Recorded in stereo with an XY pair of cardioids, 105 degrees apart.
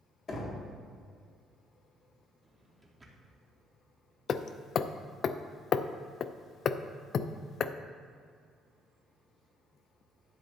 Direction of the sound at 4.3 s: 55° left.